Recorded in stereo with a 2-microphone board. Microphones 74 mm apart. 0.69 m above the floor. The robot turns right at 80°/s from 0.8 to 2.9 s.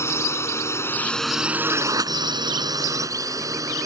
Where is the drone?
35° left (ahead or behind); by 3.9 s 50° right (ahead or behind).